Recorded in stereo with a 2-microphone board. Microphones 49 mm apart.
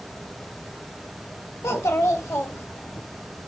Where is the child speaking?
70° left (ahead or behind), 1.7 m; by 3.0 s 55° left (ahead or behind), 2 m.